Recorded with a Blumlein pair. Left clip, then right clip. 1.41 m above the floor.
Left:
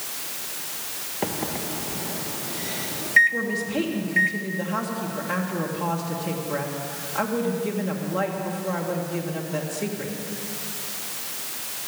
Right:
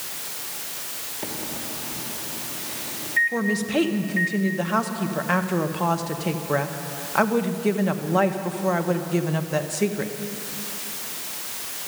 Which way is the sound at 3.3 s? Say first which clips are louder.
Right 2 dB; 30° right.